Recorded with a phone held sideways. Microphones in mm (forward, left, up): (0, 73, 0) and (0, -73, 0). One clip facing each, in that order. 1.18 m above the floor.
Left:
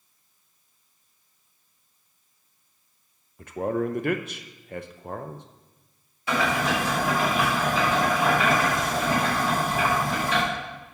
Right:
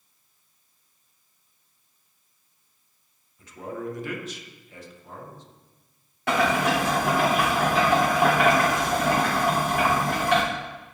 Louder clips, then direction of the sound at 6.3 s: Right 3 dB; 70° right (ahead or behind).